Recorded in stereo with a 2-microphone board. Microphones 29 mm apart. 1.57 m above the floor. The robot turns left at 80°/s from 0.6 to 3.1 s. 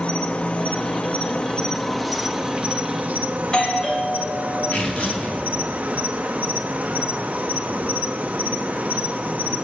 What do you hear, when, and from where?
0.0 s an insect: 115° left, 0.7 m; by 9.6 s 85° right, 0.7 m
3.4 s a doorbell: 25° left (ahead or behind), 1.6 m
4.7 s tearing paper: 35° left (ahead or behind), 2.5 m